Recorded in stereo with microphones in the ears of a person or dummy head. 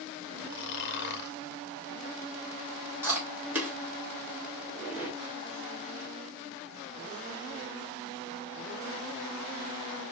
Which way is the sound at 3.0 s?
5° right (ahead or behind).